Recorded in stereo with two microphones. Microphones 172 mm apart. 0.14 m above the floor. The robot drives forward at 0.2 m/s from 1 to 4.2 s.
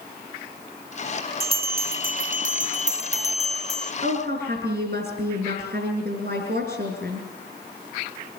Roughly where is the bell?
Right.